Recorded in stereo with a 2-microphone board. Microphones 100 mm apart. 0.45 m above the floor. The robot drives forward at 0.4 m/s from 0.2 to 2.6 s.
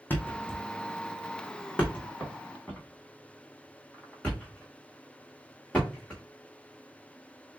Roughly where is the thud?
Left.